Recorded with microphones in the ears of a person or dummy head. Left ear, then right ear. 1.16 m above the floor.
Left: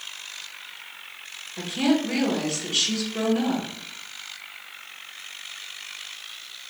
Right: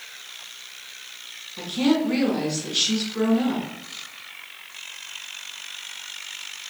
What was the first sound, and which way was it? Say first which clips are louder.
A woman speaking: right 1 dB; 40° left (ahead or behind).